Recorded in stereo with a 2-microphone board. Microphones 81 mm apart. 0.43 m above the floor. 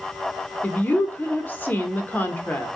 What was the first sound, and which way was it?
A woman speaking, 25° left (ahead or behind).